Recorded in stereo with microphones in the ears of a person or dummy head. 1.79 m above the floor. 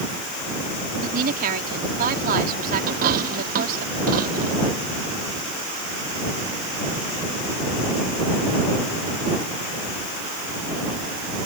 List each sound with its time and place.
1.0 s a woman speaking: 50° right (ahead or behind)
2.9 s a dropped coin: 50° right (ahead or behind)